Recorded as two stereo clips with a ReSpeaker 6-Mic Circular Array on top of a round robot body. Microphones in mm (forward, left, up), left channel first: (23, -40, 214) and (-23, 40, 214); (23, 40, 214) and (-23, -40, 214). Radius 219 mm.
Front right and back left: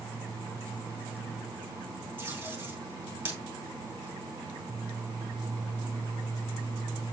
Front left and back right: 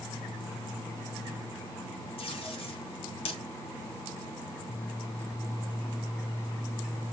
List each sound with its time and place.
2.2 s tape being pulled: 50° left, 4 m